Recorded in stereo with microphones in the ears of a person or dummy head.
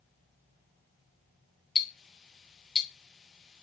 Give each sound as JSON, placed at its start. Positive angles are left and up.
{"t": 1.8, "sound": "ticking", "side_deg": 0, "distance_m": 1.0}